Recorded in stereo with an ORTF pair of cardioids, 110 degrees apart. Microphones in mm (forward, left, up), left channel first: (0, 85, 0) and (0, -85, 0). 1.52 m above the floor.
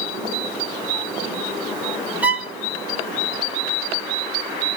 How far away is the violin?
About 0.8 m.